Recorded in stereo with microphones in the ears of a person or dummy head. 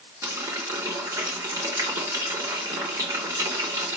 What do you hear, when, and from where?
0.2 s a running tap: 25° right (ahead or behind), 2.5 m